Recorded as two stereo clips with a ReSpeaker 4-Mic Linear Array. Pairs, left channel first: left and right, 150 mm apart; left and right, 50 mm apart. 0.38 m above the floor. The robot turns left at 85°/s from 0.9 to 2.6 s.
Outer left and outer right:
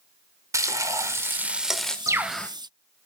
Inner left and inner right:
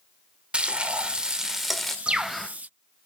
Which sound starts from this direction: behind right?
A bird, at 2.1 s.